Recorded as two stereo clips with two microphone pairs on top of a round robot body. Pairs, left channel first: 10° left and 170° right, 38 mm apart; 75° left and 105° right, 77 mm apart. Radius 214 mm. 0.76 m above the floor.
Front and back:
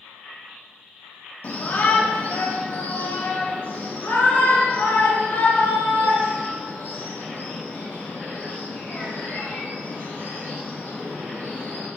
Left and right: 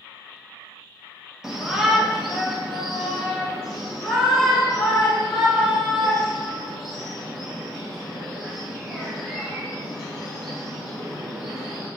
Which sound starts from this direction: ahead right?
A shout, at 1.4 s.